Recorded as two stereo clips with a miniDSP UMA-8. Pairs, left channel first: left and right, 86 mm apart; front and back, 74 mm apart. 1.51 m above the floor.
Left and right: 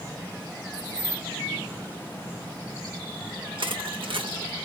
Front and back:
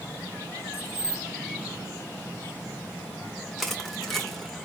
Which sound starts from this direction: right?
Crushing, at 3.6 s.